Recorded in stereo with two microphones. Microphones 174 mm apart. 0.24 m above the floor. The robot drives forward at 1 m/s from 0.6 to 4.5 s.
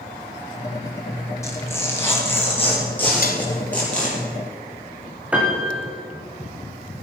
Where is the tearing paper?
15° left (ahead or behind), 3 m; by 4.2 s 10° left (ahead or behind), 5.5 m.